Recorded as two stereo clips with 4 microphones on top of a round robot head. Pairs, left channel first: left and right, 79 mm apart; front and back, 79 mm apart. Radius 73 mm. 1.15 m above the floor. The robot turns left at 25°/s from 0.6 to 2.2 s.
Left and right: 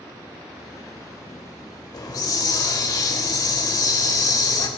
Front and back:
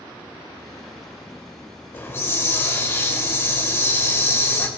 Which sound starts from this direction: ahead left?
A hiss, at 1.9 s.